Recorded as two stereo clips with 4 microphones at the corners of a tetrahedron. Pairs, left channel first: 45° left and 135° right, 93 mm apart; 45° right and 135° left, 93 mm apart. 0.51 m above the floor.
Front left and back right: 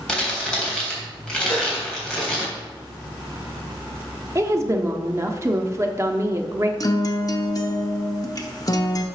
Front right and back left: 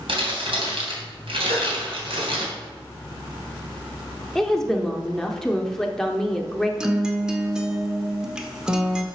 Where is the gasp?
125° left, 4 m.